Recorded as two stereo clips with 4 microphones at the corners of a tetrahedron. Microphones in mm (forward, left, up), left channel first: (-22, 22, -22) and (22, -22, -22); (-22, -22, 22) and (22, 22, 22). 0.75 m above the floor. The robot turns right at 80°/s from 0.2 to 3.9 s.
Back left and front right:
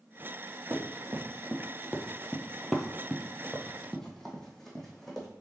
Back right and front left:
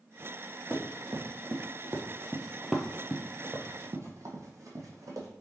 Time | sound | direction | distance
0.7 | running footsteps | 35° right | 1.4 m